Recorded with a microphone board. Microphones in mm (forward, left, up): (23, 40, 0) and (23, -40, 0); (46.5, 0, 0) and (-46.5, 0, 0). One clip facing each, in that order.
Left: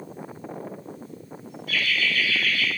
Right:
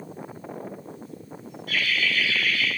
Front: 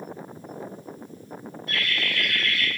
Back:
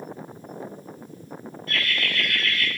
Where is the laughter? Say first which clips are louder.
Even, back 1 dB; 70° right, 2.5 m; by 2.7 s 90° right, 2.5 m.